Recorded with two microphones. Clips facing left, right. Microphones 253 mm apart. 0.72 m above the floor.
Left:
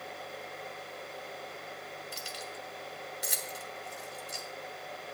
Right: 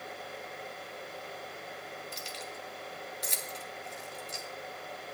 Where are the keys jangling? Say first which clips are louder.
Even; 10° left (ahead or behind), 1.3 m.